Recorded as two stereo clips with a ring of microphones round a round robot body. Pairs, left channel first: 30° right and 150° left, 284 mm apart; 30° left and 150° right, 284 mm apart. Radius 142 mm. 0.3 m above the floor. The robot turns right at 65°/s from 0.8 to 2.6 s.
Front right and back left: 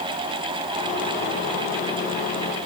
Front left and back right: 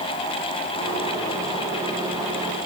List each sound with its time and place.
Only background noise.